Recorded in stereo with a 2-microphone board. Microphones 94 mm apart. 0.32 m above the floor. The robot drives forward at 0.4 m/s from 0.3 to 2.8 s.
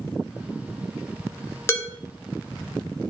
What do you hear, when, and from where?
1.7 s dishes clattering: 25° left (ahead or behind), 0.9 m; by 1.9 s 30° left (ahead or behind), 0.9 m